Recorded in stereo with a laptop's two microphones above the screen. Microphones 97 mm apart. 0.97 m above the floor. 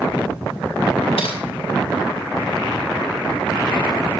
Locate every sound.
1.2 s typing on a keyboard: 85° left, 9 m